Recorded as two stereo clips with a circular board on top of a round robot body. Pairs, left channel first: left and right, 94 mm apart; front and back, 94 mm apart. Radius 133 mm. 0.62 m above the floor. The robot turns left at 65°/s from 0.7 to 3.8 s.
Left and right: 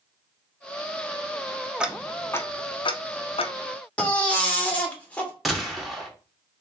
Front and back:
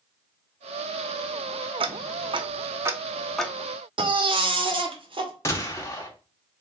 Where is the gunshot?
Straight ahead, 1.3 m.